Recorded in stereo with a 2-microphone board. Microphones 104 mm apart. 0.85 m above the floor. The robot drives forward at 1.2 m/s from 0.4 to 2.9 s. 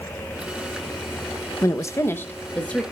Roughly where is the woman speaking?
Left.